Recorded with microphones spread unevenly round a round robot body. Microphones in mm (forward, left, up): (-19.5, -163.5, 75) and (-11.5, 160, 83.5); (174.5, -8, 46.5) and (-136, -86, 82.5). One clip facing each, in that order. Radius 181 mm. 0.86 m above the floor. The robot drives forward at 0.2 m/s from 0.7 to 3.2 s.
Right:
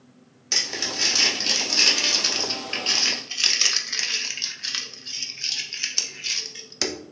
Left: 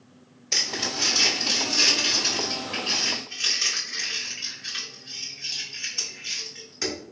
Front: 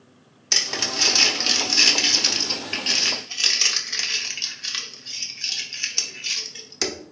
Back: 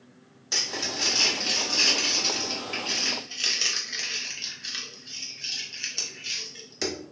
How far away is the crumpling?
About 0.9 m.